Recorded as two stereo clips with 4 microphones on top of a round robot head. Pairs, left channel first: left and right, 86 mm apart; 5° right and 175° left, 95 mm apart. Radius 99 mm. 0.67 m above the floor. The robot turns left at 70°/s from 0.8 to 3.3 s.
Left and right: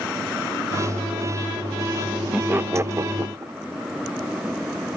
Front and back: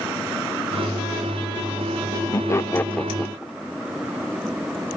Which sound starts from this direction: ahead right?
Laughter, at 2.3 s.